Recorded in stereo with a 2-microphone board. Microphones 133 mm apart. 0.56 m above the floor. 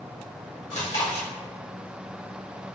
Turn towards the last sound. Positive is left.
turn(degrees=60)  # may be behind; listen again after turning